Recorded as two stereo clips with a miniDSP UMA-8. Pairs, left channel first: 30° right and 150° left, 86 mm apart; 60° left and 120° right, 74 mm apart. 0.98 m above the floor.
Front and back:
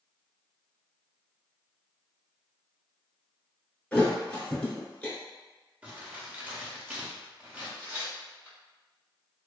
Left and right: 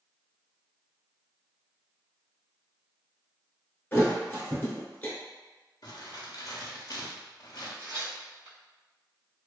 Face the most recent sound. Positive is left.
turn(degrees=-145)